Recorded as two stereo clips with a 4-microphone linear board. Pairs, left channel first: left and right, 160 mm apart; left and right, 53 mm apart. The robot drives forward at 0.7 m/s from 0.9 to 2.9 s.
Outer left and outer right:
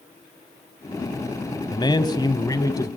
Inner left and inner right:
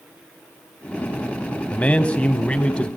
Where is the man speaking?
30° left (ahead or behind), 1.1 m; by 2.9 s 20° left (ahead or behind), 1.5 m.